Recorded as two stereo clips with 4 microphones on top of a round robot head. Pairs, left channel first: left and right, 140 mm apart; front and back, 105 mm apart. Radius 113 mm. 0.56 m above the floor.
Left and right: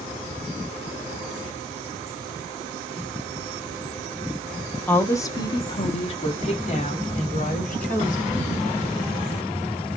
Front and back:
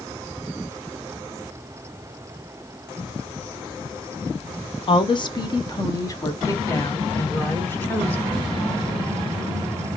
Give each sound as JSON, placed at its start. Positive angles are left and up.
{"t": 4.9, "sound": "a woman speaking", "azimuth_deg": 15, "distance_m": 0.9}